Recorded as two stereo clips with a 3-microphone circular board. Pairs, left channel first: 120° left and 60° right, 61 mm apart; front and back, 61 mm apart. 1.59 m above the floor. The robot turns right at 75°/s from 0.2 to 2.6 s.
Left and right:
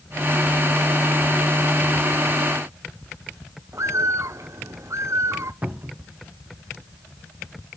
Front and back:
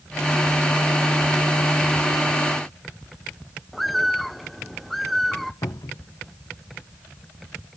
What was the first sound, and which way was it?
A bird, 90° right.